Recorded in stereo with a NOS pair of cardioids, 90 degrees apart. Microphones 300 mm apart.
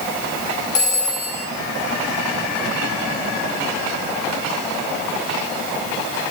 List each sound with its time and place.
0.8 s a phone ringing: 65° left, 4.5 m